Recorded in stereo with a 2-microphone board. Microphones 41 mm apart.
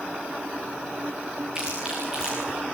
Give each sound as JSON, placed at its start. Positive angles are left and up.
{"t": 1.6, "sound": "chewing", "side_deg": -20, "distance_m": 8.5}